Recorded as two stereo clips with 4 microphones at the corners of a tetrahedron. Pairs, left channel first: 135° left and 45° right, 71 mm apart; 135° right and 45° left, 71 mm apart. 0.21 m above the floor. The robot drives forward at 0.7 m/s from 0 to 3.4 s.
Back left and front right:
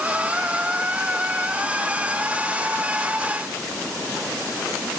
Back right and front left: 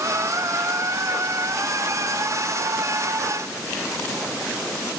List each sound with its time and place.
Only background noise.